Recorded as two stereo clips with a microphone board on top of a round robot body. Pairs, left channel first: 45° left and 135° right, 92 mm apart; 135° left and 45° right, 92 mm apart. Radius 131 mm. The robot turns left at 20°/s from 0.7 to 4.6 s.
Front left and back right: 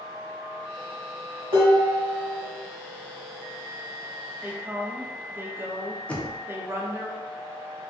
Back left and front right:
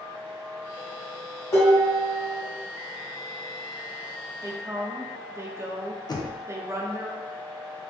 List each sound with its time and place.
1.5 s dishes clattering: 165° right, 1.2 m; by 2.4 s 175° left, 1.2 m
4.4 s a woman speaking: 80° right, 0.6 m; by 7.1 s 85° right, 0.6 m
6.1 s knocking: 115° left, 0.6 m